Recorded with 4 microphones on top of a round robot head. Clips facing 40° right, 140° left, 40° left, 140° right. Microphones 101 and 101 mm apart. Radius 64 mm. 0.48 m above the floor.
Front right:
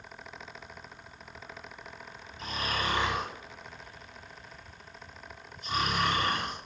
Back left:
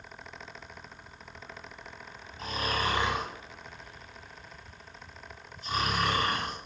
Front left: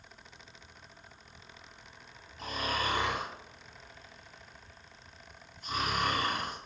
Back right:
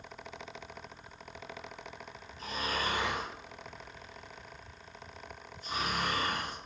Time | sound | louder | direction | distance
2.4 | snoring | back left 2 dB, front left 1 dB | 80° left | 1.8 m